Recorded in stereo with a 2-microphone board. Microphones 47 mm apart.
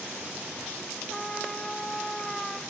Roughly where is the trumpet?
Centre.